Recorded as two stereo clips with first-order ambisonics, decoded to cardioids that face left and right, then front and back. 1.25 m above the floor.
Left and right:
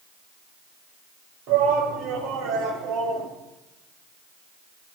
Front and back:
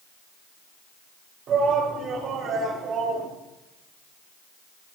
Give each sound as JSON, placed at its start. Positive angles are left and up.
{"t": 1.5, "sound": "a shout", "azimuth_deg": -125, "distance_m": 3.0}